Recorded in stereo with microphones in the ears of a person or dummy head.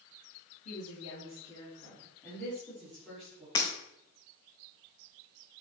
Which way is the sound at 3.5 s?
30° left (ahead or behind).